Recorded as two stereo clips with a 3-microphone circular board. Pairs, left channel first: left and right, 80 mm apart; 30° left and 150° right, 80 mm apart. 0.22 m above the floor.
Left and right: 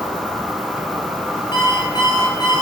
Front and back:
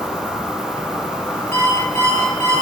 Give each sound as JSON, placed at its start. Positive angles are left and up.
{"t": 0.0, "sound": "an insect", "azimuth_deg": -20, "distance_m": 1.1}
{"t": 1.5, "sound": "an alarm clock", "azimuth_deg": 80, "distance_m": 1.2}